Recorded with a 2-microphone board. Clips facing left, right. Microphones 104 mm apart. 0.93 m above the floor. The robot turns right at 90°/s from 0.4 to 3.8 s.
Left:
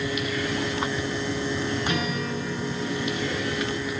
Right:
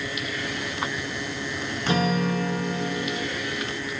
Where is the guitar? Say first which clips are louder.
Right 4 dB; 145° right, 1.1 m; by 3.3 s 20° right, 1.1 m.